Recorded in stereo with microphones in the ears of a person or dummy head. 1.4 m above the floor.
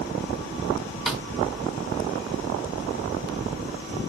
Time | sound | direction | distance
1.1 | a snare drum | centre (ahead or behind) | 0.6 m